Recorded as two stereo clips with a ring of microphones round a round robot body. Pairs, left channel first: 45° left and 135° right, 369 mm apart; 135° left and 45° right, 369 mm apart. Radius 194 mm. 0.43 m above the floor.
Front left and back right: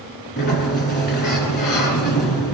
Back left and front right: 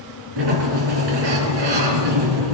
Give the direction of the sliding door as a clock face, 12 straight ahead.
1 o'clock.